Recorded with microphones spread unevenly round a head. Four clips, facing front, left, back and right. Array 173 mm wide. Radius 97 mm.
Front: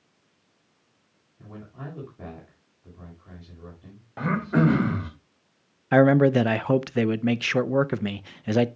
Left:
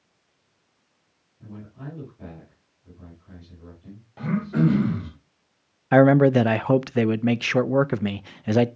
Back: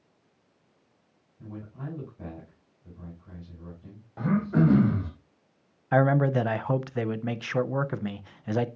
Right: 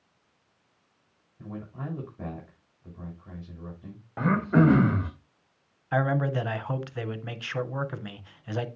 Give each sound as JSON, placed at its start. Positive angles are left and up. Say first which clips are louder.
{"t": 1.4, "sound": "a man speaking", "louder": "right 2 dB, even", "azimuth_deg": -45, "distance_m": 6.5}
{"t": 4.2, "sound": "throat clearing", "louder": "right 1 dB, front 1 dB", "azimuth_deg": -40, "distance_m": 2.0}
{"t": 5.9, "sound": "a man speaking", "louder": "left 12 dB, front 6 dB", "azimuth_deg": 55, "distance_m": 0.5}